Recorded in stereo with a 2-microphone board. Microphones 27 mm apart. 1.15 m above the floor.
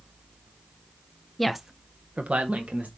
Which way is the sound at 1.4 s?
5° left (ahead or behind).